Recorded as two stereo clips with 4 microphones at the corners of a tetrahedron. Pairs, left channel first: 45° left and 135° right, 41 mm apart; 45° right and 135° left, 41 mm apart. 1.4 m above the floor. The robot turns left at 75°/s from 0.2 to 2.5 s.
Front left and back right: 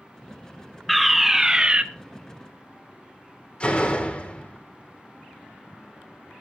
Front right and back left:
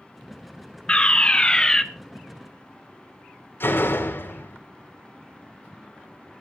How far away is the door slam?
About 3.5 m.